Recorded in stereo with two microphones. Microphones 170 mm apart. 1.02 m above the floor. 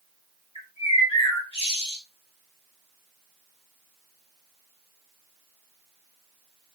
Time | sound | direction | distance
0.6 | a bird | 35° left (ahead or behind) | 1.5 m